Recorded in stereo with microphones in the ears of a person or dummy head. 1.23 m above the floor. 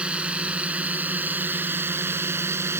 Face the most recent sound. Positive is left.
turn(degrees=-20)  # may be behind; listen again after turning